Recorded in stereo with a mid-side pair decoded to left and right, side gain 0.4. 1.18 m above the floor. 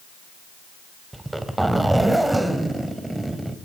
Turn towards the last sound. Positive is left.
turn(degrees=-10)